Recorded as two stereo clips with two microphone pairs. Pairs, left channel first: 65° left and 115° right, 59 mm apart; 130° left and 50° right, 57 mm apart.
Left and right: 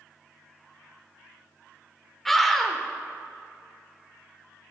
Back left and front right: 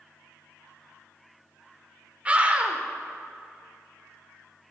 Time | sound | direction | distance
2.2 | a scream | 20° right | 0.8 m